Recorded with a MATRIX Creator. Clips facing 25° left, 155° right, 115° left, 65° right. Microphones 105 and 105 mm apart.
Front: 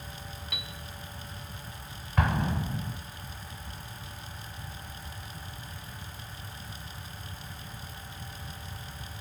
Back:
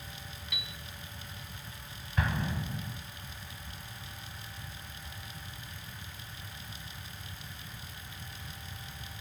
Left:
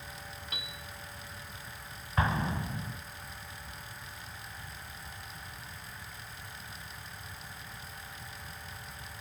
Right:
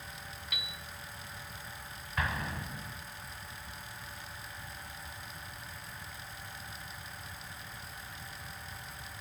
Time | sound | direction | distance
0.5 | a piano | 60° left | 0.7 m
2.2 | an explosion | 55° left | 0.6 m